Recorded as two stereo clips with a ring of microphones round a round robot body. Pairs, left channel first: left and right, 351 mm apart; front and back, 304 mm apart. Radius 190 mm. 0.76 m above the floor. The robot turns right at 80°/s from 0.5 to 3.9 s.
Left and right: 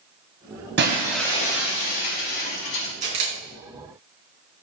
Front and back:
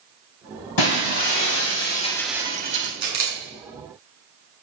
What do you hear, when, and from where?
0.8 s breaking glass: 30° right, 2 m; by 2.9 s 140° left, 2 m
3.0 s a camera shutter: 160° right, 3 m; by 3.4 s 135° right, 3 m